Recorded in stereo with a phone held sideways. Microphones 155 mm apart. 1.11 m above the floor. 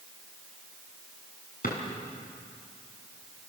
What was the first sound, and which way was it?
A drawer, 60° left (ahead or behind).